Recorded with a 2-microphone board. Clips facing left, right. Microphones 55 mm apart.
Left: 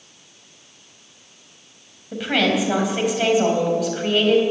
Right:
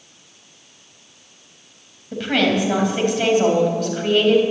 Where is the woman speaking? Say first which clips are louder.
Right 1 dB; 5° left (ahead or behind), 4 m.